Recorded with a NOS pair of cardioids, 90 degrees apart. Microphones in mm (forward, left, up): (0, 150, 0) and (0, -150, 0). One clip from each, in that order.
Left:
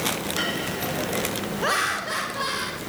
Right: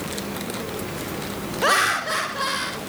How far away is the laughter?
About 1.0 m.